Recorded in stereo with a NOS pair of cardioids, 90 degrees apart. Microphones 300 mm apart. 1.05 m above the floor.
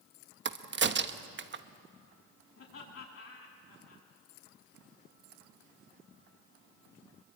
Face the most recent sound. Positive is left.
turn(degrees=45)